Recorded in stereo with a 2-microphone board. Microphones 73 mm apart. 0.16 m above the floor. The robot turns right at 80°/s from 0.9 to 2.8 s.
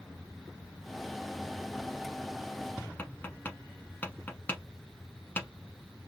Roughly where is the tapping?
Left.